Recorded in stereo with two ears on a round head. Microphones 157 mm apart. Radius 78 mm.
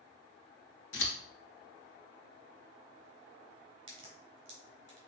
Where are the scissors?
80° left, 1.9 m.